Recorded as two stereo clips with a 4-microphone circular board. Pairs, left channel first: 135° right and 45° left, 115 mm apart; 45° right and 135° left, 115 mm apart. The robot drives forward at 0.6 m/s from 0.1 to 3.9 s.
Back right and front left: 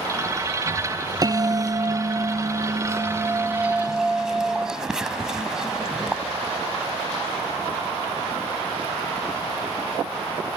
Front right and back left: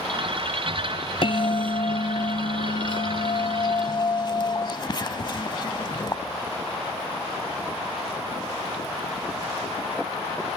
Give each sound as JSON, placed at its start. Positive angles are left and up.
{"t": 1.2, "sound": "a bell", "azimuth_deg": -5}